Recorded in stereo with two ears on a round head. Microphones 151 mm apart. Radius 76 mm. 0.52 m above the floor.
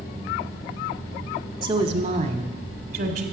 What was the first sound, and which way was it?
A woman speaking, 30° right (ahead or behind).